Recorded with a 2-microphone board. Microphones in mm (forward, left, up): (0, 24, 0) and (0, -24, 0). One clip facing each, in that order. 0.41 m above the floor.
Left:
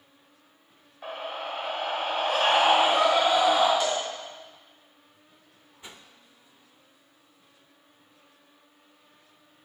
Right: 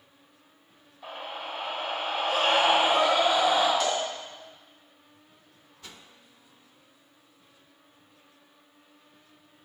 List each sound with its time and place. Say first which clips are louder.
1.0 s a scream: left 3 dB; 50° left (ahead or behind), 1.8 m; by 3.7 s 70° left (ahead or behind), 4.5 m
3.8 s a cowbell: even; 15° left (ahead or behind), 2.5 m
5.8 s a whoosh: left 1 dB; 20° left (ahead or behind), 0.5 m